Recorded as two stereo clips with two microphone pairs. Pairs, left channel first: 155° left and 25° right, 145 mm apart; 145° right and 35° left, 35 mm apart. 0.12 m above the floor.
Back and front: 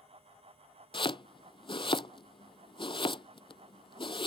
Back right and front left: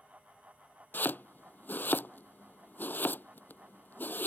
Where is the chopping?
155° right.